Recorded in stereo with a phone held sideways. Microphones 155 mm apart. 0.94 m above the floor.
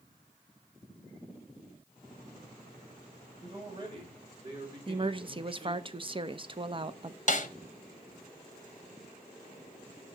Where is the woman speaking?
35° right (ahead or behind), 0.6 m.